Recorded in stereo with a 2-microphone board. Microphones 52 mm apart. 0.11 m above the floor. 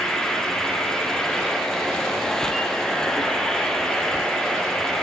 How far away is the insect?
About 4.5 m.